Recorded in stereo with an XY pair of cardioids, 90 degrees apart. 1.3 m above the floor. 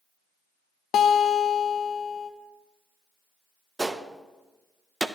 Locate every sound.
0.9 s a guitar: 70° left, 0.7 m
3.8 s a gunshot: 20° right, 0.6 m